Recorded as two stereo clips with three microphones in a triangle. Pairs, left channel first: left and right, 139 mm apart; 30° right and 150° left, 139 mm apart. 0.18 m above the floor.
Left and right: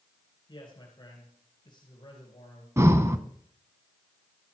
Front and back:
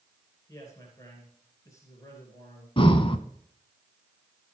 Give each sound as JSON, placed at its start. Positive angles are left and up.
{"t": 0.5, "sound": "a man speaking", "azimuth_deg": 35, "distance_m": 3.0}
{"t": 2.8, "sound": "breathing", "azimuth_deg": -35, "distance_m": 0.7}